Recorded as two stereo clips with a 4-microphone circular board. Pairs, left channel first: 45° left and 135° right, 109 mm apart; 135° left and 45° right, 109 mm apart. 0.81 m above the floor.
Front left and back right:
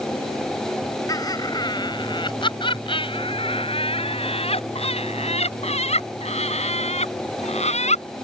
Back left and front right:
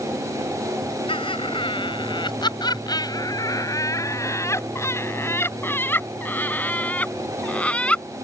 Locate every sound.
1.1 s laughter: 100° left; by 8.0 s 55° left